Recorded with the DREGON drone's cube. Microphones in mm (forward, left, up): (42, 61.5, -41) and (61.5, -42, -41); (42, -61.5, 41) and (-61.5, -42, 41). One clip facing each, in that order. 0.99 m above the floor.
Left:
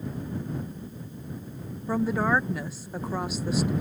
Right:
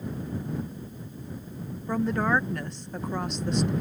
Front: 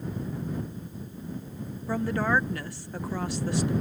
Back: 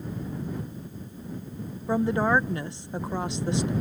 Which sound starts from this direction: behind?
A woman speaking, at 1.9 s.